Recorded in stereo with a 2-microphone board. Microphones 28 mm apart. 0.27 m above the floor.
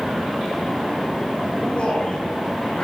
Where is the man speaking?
40° left (ahead or behind), 3 m.